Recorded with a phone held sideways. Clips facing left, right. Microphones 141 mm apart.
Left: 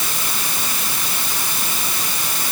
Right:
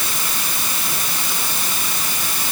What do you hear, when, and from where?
Only background noise.